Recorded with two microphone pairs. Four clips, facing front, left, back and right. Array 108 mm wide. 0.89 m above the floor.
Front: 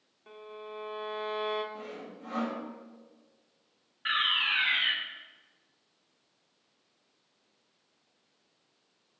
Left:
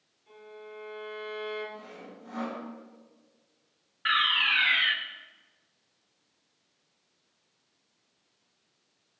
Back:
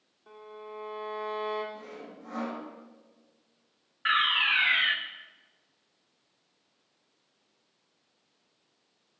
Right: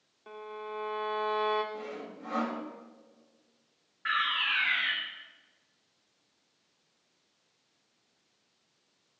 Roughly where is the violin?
Right.